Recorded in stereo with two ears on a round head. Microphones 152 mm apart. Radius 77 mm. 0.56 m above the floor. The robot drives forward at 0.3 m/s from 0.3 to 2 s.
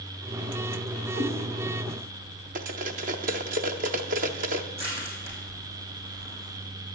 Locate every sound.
1.1 s a cat meowing: 75° right (ahead or behind), 1.7 m; by 1.3 s 70° right (ahead or behind), 1.7 m
2.5 s cutlery clinking: 50° right (ahead or behind), 0.6 m
4.8 s crushing: 40° right (ahead or behind), 4.5 m